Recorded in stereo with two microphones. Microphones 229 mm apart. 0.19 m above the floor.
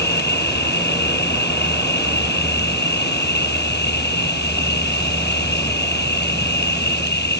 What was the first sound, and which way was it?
An insect, 45° left (ahead or behind).